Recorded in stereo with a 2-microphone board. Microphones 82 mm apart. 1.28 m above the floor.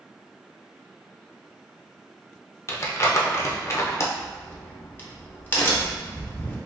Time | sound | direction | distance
2.7 | crumpling | 35° left (ahead or behind) | 0.5 m
4.2 | a crack | 25° left (ahead or behind) | 0.8 m